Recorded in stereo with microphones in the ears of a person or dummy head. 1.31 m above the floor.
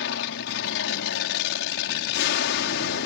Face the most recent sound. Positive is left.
turn(degrees=60)  # may be behind; listen again after turning